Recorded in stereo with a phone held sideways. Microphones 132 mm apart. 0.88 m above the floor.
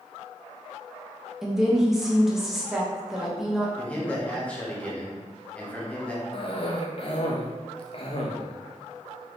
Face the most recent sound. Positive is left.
turn(degrees=45)  # may be behind; listen again after turning